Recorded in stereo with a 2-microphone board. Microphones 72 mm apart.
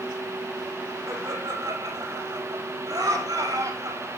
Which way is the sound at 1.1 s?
60° right (ahead or behind).